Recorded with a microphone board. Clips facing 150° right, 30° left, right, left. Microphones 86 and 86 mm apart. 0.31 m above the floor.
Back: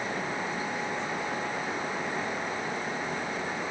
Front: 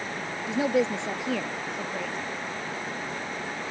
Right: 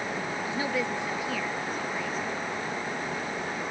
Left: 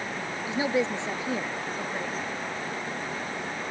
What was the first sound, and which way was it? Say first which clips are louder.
A woman speaking: front 8 dB, left 5 dB; 20° left.